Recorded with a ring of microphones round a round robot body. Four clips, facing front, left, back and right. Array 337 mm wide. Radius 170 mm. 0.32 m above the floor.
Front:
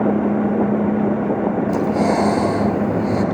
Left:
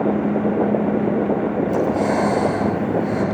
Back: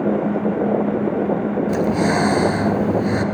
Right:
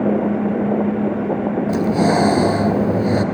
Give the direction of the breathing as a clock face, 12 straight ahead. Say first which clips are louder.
Right 4 dB, even; 4 o'clock.